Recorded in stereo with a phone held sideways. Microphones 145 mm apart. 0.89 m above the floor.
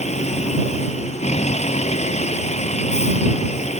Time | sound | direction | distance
0.0 | a vehicle | 50° left (ahead or behind) | ?